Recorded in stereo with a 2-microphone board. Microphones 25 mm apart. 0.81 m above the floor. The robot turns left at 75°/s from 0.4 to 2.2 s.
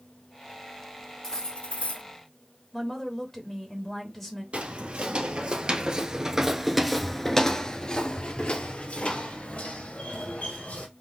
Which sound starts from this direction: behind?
Cutlery clinking, at 1.2 s.